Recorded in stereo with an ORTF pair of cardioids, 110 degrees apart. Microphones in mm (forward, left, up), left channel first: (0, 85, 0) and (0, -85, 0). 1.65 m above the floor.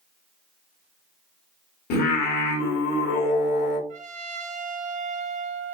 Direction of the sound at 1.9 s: 70° left.